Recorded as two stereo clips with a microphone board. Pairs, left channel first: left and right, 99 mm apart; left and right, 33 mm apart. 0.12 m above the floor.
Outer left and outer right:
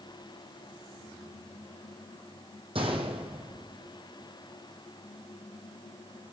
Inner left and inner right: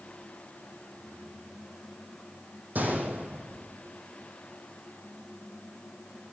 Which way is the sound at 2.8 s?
60° right (ahead or behind).